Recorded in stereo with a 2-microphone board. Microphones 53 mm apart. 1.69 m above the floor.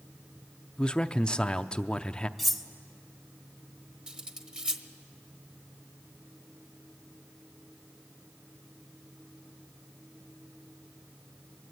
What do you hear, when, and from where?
0.8 s a man speaking: 15° left (ahead or behind), 0.6 m
2.4 s cutlery clinking: centre (ahead or behind), 0.9 m
4.1 s cutlery clinking: 15° right (ahead or behind), 1.0 m